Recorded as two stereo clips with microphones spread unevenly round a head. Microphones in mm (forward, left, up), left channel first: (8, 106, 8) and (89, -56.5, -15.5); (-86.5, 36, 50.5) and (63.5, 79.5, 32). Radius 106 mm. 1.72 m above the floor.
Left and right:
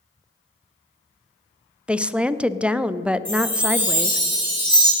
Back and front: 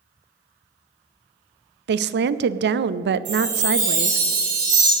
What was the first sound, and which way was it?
A woman speaking, 20° left.